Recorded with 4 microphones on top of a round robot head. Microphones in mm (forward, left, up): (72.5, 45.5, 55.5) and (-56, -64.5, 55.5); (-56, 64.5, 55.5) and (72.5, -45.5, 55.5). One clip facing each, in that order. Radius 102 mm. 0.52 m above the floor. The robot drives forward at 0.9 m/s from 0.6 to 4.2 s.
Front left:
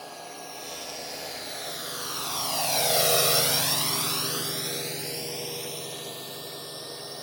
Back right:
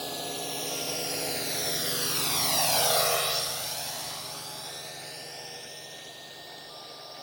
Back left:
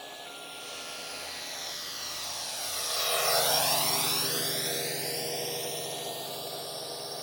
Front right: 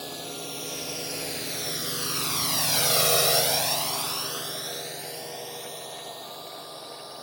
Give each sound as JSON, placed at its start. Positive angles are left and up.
{"t": 0.0, "sound": "a drone", "azimuth_deg": -85}